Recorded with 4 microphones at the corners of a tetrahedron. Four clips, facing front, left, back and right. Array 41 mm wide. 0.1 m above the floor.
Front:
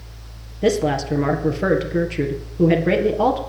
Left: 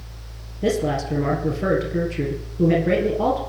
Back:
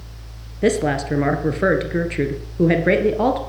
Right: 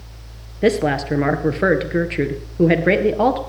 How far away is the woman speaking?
About 1.9 m.